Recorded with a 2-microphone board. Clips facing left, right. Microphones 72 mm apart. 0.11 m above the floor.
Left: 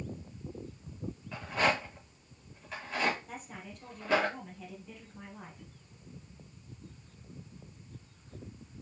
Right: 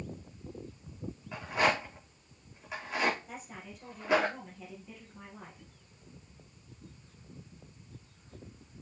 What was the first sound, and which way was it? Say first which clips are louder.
A rattle: right 1 dB; 15° right (ahead or behind).